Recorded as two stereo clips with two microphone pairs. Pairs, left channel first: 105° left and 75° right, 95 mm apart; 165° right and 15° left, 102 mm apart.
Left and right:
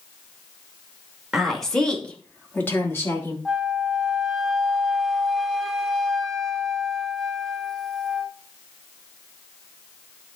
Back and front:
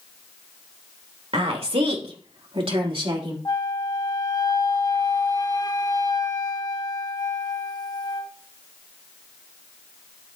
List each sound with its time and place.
1.3 s a woman speaking: 15° left, 2.5 m; by 3.4 s 45° left, 3.5 m
3.5 s a flute: 165° right, 0.9 m